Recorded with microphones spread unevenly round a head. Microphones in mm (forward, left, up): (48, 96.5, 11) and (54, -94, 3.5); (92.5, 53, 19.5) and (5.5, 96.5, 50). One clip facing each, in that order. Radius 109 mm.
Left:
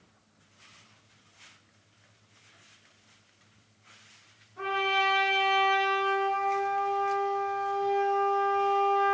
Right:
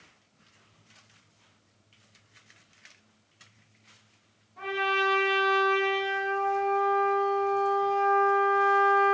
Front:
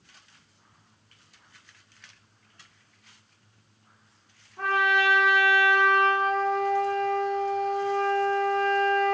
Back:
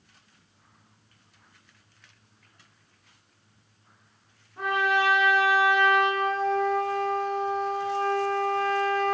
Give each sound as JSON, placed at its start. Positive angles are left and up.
{"t": 4.6, "sound": "a trumpet", "azimuth_deg": -170, "distance_m": 1.2}